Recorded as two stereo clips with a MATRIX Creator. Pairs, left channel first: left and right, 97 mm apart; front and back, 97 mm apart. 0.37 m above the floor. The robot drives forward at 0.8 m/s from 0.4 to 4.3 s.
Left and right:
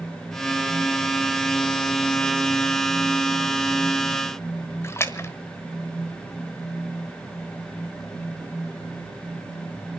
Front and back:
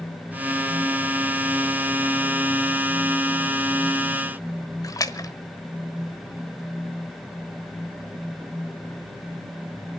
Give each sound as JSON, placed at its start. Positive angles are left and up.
{"t": 4.8, "sound": "a splash", "azimuth_deg": 35, "distance_m": 1.1}